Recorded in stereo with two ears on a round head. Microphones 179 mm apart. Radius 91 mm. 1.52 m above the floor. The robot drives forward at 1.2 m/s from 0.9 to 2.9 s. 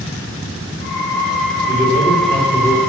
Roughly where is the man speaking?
Right.